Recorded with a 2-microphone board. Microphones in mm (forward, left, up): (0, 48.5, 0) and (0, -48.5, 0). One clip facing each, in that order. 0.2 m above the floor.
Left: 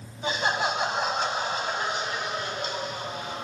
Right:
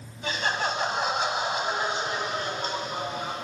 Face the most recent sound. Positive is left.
turn(degrees=-50)  # may be behind; listen again after turning